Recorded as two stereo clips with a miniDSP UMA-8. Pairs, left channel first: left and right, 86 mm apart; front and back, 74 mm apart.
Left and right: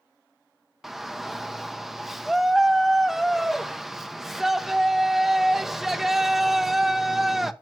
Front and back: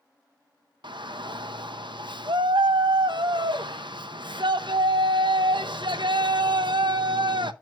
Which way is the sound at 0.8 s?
175° right.